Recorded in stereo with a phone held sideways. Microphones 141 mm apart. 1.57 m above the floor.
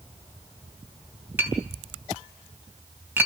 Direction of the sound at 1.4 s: 15° right (ahead or behind).